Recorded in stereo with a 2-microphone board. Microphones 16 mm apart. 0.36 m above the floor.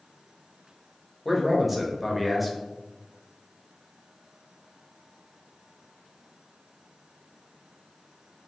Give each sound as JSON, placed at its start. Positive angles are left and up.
{"t": 1.2, "sound": "a man speaking", "side_deg": -10, "distance_m": 0.9}